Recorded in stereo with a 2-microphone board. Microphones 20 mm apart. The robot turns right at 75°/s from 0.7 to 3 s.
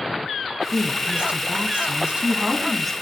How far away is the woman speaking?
About 4 m.